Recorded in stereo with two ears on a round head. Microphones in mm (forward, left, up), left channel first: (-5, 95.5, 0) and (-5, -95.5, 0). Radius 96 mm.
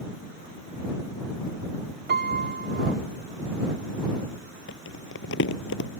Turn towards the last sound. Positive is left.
turn(degrees=60)  # may be behind; listen again after turning